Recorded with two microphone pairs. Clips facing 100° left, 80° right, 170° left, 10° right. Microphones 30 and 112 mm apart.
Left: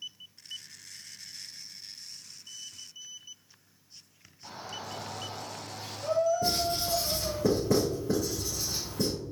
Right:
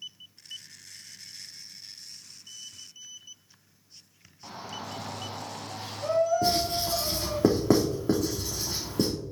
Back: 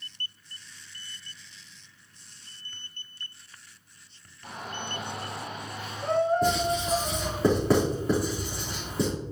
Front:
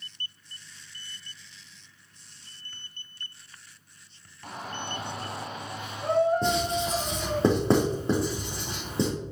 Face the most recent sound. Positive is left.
turn(degrees=-75)